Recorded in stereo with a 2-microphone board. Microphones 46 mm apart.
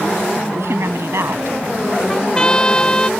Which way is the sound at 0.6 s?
75° right (ahead or behind).